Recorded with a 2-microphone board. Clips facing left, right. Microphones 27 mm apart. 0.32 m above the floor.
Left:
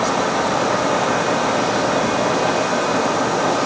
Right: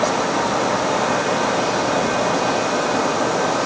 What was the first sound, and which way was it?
Only background noise.